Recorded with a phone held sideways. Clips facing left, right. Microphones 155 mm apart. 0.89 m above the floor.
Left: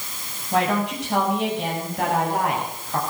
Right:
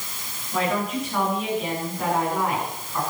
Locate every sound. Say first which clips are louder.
0.5 s a woman speaking: left 3 dB; 80° left, 7 m